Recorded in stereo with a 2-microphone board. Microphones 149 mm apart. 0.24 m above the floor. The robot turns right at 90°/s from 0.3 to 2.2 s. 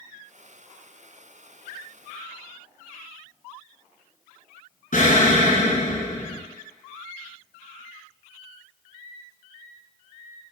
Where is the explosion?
65° left (ahead or behind), 1.4 m.